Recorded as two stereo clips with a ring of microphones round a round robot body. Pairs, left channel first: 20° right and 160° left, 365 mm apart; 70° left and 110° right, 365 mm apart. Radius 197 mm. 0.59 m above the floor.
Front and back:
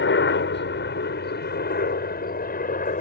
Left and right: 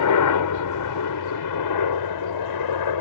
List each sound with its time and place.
0.0 s a helicopter: 35° left; by 3.0 s 45° left